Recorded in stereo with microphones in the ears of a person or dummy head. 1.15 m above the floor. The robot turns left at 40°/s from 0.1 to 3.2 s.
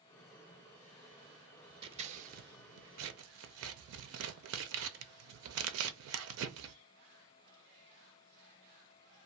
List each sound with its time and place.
1.8 s scissors: 30° right (ahead or behind), 0.5 m; by 6.8 s 75° right (ahead or behind), 0.5 m